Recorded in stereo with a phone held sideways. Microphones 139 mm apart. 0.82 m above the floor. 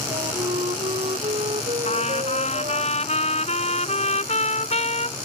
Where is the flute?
50° right (ahead or behind).